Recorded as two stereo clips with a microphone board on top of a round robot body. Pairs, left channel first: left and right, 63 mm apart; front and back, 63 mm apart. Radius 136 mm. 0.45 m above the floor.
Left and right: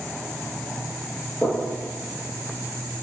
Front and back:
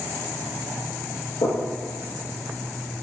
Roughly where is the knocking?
Ahead.